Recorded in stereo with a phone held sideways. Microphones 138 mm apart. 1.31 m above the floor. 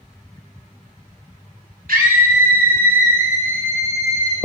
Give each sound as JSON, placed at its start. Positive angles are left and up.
{"t": 1.9, "sound": "a scream", "side_deg": -85, "distance_m": 3.5}